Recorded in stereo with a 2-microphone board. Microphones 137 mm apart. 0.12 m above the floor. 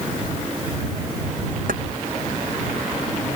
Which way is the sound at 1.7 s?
80° right.